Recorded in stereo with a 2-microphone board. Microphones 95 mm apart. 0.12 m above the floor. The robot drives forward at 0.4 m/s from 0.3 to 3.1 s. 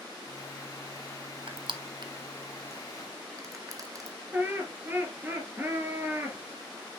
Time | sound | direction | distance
1.5 | crushing | 65° right (ahead or behind) | 0.8 m
4.3 | laughter | 20° right (ahead or behind) | 1.8 m